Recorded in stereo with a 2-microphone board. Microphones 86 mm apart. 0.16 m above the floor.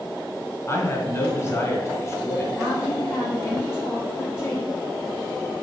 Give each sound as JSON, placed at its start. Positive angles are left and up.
{"t": 0.7, "sound": "a man speaking", "side_deg": 30, "distance_m": 1.6}
{"t": 2.6, "sound": "a woman speaking", "side_deg": 30, "distance_m": 3.0}